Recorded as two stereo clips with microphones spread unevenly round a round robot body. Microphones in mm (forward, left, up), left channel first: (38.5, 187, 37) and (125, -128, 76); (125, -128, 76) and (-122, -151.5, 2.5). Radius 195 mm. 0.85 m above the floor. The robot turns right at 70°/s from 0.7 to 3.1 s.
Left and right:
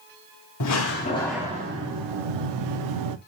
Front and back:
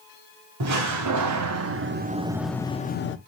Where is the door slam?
150° left, 0.9 m; by 3.2 s 40° right, 0.9 m.